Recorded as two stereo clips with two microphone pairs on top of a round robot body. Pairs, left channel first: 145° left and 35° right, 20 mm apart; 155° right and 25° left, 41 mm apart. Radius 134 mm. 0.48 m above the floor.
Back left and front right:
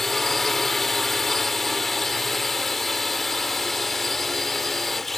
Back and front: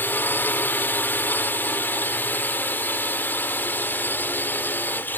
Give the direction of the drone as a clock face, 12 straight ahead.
5 o'clock.